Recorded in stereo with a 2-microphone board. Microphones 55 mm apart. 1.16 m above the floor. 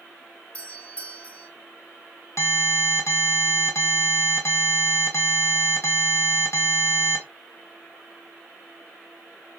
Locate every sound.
0.5 s a doorbell: 25° left (ahead or behind), 1.9 m
2.4 s an alarm: 60° left (ahead or behind), 3 m